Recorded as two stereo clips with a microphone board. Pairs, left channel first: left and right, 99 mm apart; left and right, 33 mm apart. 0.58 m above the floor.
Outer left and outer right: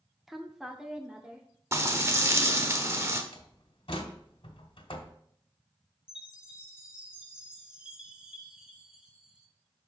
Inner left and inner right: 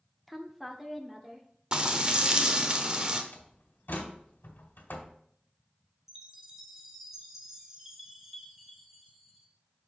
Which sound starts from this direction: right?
Frying, at 1.7 s.